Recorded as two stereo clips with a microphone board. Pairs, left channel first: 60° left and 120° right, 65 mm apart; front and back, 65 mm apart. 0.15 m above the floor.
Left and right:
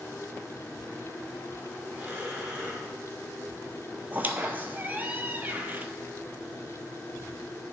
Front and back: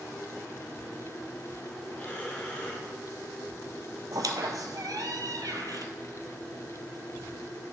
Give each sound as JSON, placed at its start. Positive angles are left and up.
{"t": 1.9, "sound": "breathing", "azimuth_deg": -60, "distance_m": 2.5}
{"t": 4.1, "sound": "a squeak", "azimuth_deg": 180, "distance_m": 0.8}